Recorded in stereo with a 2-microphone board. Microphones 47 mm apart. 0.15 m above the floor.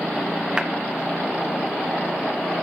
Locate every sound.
0.6 s a clap: 20° right (ahead or behind), 1.2 m